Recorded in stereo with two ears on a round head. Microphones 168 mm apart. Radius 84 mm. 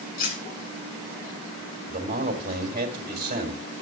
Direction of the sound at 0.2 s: 50° left (ahead or behind).